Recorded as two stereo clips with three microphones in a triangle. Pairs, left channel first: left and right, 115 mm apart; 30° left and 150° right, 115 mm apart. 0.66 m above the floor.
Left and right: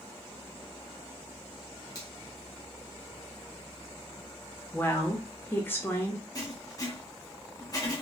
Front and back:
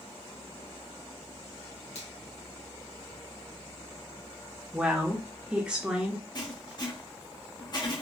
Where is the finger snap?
35° left, 1.9 m.